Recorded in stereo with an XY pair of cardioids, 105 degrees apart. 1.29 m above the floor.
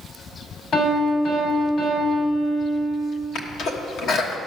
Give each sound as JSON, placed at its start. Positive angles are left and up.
{"t": 0.7, "sound": "a piano", "azimuth_deg": 65, "distance_m": 4.0}
{"t": 3.4, "sound": "a sneeze", "azimuth_deg": 70, "distance_m": 1.5}